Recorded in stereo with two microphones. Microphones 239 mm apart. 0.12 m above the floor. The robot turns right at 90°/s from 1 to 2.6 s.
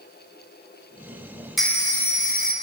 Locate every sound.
1.6 s a phone ringing: straight ahead, 0.9 m; by 2.5 s 85° left, 0.9 m